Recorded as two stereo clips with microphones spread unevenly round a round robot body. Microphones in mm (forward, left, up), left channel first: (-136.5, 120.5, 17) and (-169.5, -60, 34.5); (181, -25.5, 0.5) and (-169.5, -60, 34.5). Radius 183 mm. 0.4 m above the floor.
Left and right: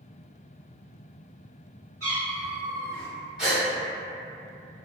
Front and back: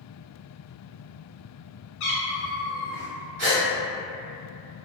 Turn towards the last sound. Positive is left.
turn(degrees=170)